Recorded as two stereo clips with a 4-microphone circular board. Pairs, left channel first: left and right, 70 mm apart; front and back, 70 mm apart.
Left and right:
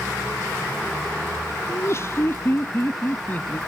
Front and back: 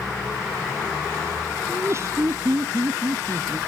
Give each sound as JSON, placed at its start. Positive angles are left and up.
{"t": 1.7, "sound": "laughter", "azimuth_deg": 135}